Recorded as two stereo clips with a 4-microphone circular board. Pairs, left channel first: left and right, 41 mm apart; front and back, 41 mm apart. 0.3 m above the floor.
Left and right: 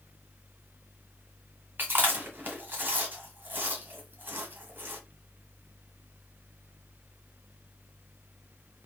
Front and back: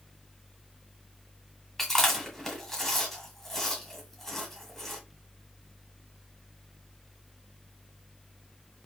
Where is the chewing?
80° right, 1.7 m.